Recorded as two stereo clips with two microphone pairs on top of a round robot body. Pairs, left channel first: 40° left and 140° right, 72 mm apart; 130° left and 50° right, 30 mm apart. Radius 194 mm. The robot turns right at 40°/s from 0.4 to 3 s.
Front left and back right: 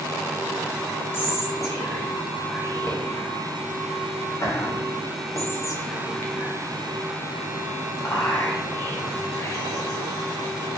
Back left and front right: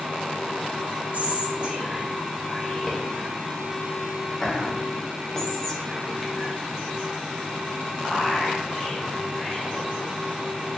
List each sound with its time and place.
1.1 s whispering: 10° right, 1.0 m; by 9.8 s 65° left, 1.0 m